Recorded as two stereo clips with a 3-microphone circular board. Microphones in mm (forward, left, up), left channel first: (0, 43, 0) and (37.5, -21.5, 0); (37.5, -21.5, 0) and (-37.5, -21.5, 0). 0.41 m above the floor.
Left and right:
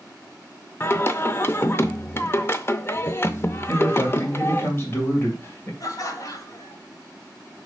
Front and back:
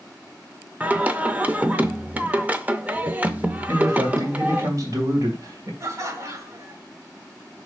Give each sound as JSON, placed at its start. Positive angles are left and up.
{"t": 0.8, "sound": "singing", "azimuth_deg": 130, "distance_m": 0.5}
{"t": 3.7, "sound": "a man speaking", "azimuth_deg": 165, "distance_m": 2.0}
{"t": 5.8, "sound": "laughter", "azimuth_deg": 145, "distance_m": 1.5}